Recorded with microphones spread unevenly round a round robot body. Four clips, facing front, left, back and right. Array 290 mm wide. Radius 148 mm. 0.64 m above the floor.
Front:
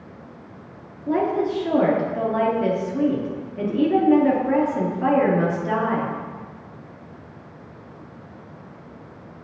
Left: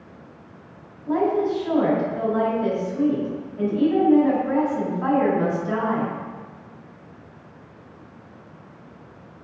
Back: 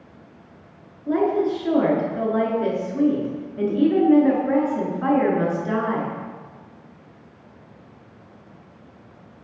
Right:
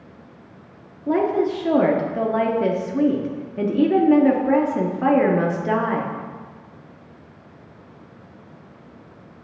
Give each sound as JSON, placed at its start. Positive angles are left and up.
{"t": 1.1, "sound": "a woman speaking", "azimuth_deg": -90, "distance_m": 1.1}